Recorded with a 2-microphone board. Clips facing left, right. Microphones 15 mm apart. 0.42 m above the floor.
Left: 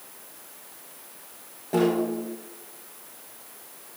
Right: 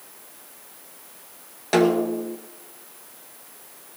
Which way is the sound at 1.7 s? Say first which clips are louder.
Right 4 dB; 75° right (ahead or behind).